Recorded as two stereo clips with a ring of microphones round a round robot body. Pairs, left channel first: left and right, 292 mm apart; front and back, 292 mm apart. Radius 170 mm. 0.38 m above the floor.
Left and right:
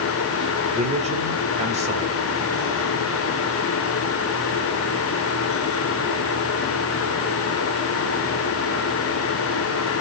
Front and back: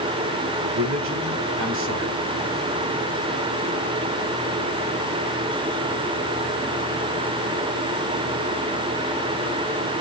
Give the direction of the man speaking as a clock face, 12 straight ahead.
5 o'clock.